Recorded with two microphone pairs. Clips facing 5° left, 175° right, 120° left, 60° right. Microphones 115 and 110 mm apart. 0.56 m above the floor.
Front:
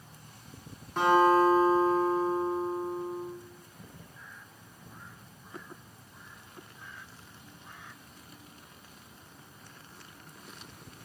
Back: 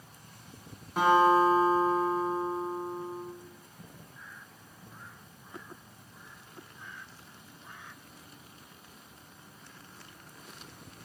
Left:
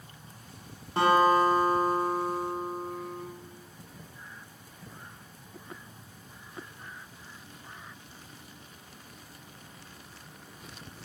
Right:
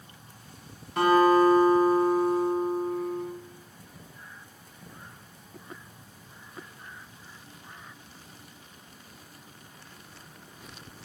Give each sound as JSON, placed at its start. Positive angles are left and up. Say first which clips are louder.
{"t": 1.0, "sound": "a guitar", "louder": "even, right 3 dB", "azimuth_deg": 110, "distance_m": 0.9}